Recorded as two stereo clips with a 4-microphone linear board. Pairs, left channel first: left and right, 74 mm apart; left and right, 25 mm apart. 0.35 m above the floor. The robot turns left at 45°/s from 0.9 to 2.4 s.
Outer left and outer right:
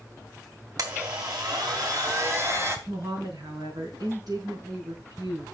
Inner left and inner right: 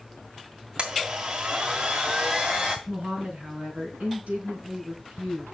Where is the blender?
65° right, 2.5 m; by 2.8 s 135° right, 2.5 m.